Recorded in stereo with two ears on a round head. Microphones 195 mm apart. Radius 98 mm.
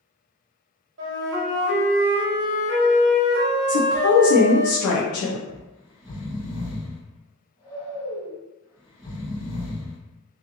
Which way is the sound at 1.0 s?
55° right (ahead or behind).